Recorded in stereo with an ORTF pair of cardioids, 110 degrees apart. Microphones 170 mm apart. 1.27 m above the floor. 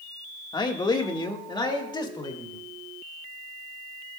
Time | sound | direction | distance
0.5 | a man speaking | 25° left | 1.6 m